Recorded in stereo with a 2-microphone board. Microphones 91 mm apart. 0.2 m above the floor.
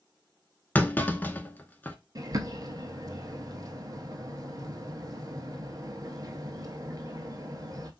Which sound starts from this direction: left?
A clunk, at 0.8 s.